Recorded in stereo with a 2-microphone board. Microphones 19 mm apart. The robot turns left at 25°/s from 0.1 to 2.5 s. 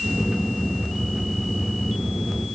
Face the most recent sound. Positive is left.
No sound to turn to.